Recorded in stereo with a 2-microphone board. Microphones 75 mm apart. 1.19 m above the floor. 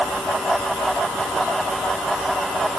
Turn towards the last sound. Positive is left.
No sound to turn to.